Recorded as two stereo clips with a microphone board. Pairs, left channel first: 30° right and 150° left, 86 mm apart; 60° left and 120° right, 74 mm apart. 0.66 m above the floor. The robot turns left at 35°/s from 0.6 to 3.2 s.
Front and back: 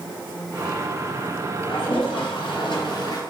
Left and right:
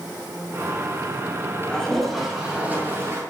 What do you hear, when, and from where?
1.7 s a toilet flushing: 15° right, 2.0 m; by 3.2 s 70° right, 2.0 m